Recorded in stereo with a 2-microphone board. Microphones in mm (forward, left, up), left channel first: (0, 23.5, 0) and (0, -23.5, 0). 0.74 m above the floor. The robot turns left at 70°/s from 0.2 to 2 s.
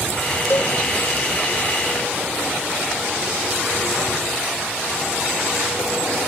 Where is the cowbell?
60° left (ahead or behind); by 0.8 s 45° left (ahead or behind).